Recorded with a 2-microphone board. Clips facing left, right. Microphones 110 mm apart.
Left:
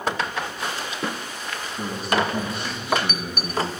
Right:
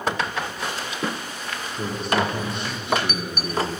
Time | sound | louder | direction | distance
1.8 | a man speaking | even | 5° left (ahead or behind) | 4 m